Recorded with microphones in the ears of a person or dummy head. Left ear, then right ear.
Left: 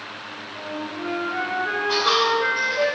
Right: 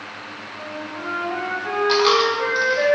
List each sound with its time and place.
0.6 s a flute: 80° right, 1.7 m
1.9 s a dropped coin: 35° right (ahead or behind), 0.7 m